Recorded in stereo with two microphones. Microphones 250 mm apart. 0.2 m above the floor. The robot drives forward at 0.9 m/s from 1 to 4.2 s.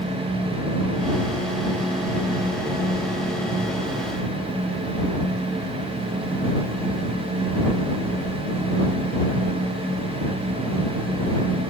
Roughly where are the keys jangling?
No keys jangling in this recording.